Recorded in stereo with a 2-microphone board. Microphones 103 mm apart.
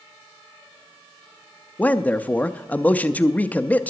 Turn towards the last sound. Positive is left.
turn(degrees=15)  # may be behind; listen again after turning